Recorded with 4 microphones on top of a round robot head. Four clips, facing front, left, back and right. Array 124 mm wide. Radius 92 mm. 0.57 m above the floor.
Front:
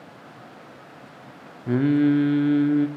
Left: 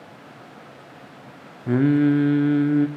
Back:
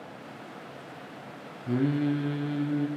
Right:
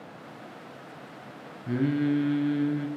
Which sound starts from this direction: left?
Singing, at 1.7 s.